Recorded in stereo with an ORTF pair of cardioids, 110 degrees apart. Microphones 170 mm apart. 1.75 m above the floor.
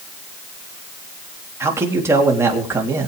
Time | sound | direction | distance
1.6 | a man speaking | 15° right | 4 m